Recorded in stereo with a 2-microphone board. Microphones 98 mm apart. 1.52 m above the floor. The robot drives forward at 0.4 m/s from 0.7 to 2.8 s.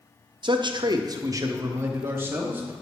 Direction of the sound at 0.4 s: 55° right (ahead or behind).